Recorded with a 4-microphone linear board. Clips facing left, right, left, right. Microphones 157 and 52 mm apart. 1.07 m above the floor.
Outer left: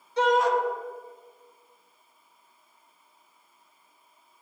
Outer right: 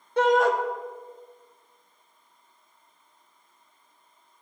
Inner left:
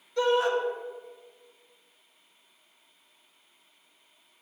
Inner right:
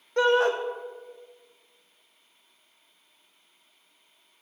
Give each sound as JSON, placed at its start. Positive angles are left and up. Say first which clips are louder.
{"t": 0.2, "sound": "a shout", "louder": "outer right 2 dB, inner right 3 dB", "side_deg": -55, "distance_m": 1.0}